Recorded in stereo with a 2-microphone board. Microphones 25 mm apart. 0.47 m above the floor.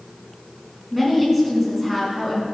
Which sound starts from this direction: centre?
A woman speaking, at 0.9 s.